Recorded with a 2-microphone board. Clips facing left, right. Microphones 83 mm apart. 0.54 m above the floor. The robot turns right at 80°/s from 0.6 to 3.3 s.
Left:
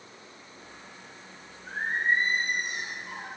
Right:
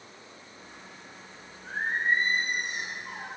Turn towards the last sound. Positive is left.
turn(degrees=-15)